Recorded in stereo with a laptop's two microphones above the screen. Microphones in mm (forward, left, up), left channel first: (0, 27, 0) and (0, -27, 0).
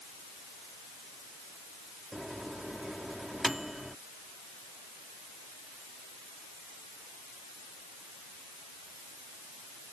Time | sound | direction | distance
2.1 | a microwave | 5° right (ahead or behind) | ?